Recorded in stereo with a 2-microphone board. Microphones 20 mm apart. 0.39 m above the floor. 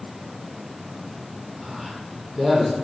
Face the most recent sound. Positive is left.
turn(degrees=-10)  # may be behind; listen again after turning